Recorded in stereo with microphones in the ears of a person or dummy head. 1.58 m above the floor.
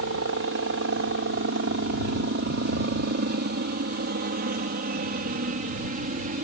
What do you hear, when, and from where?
0.0 s a helicopter: 60° right (ahead or behind); by 6.5 s 40° right (ahead or behind)